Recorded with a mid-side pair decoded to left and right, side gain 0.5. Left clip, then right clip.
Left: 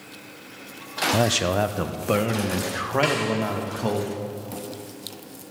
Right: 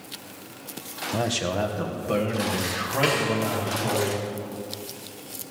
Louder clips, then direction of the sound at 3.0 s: Right 2 dB; 15° left.